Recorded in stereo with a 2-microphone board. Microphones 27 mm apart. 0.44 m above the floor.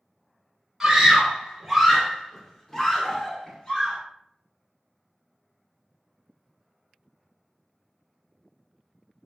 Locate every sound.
0.8 s a scream: 10° right (ahead or behind), 1.1 m; by 4.0 s 25° left (ahead or behind), 1.1 m